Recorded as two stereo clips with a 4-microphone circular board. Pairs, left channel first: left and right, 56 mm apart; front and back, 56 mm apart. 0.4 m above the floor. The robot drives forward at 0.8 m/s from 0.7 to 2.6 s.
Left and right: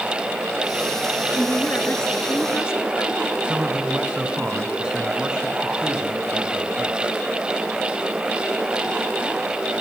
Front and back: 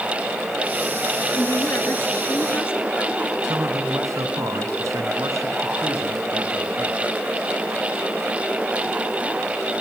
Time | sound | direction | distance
1.3 | a woman speaking | 40° left | 5.5 m
3.4 | a man speaking | 165° right | 5 m